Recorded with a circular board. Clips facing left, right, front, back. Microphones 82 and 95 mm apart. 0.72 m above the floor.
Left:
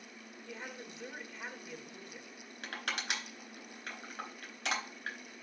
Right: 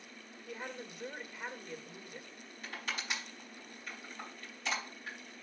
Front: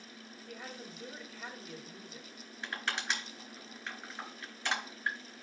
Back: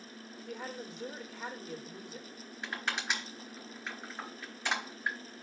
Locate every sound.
0.5 s a woman speaking: 175° right, 2 m
2.6 s crushing: 105° left, 4 m